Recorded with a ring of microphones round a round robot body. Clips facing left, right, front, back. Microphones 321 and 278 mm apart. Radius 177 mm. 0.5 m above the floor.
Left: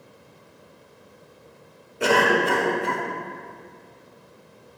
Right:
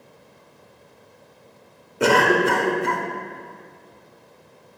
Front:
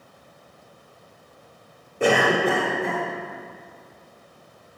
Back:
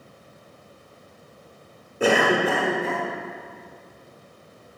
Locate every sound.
2.0 s a cough: 100° right, 1.1 m